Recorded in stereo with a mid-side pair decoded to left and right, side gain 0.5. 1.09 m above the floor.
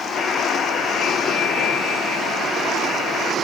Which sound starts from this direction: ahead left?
A buzzer, at 0.2 s.